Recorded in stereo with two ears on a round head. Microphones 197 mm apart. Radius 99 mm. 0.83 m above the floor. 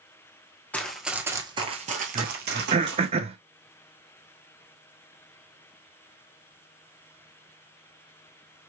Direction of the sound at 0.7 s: 5° left (ahead or behind).